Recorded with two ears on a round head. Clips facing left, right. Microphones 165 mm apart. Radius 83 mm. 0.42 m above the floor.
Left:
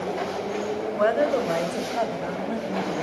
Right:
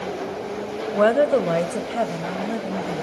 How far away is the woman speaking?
About 1.4 m.